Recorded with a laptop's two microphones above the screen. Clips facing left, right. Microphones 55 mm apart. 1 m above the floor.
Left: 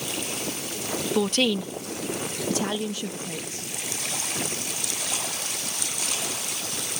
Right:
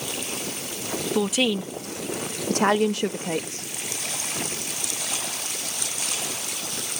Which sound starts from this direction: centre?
A woman speaking, at 1.1 s.